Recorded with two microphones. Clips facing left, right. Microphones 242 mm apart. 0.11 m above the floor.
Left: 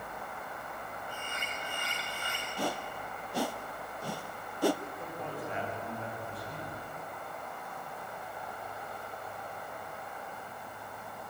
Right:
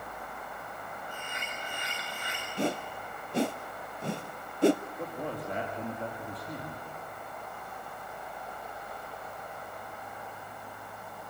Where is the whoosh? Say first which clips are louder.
Right 5 dB; 25° right (ahead or behind), 0.5 m.